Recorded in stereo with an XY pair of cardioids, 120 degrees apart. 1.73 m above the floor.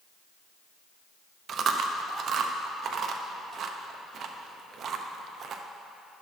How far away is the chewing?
About 0.7 m.